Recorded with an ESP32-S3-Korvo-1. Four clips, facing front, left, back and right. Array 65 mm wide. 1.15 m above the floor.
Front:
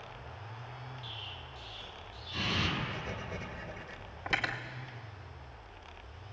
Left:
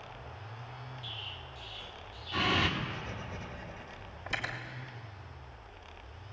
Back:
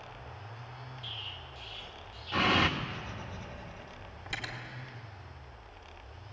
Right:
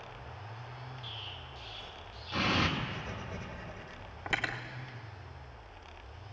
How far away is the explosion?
About 1.7 m.